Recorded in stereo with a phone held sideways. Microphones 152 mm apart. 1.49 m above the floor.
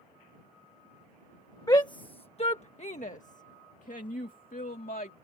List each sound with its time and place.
1.7 s a shout: 25° left (ahead or behind); by 5.2 s 70° left (ahead or behind)